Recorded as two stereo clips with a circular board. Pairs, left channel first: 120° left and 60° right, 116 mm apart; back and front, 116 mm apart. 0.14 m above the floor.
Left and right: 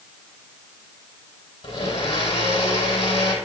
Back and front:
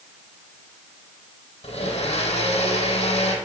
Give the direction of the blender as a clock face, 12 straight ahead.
7 o'clock.